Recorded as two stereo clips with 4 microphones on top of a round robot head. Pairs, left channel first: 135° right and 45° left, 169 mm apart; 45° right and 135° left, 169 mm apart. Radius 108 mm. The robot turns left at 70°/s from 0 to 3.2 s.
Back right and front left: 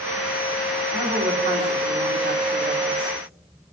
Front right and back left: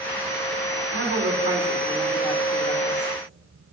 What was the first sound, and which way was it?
A woman speaking, 115° left.